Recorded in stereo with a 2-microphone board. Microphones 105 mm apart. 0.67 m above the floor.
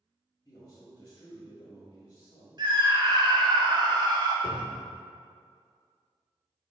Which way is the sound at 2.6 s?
45° right (ahead or behind).